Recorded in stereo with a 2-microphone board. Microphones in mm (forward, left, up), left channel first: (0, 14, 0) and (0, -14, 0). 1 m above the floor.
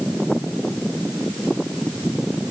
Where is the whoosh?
No whoosh in this recording.